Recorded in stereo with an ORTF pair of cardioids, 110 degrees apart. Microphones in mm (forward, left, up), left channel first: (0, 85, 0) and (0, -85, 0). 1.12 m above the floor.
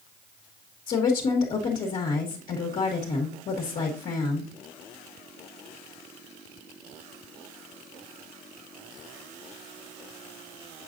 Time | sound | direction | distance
0.9 | a woman speaking | 50° left | 1.6 m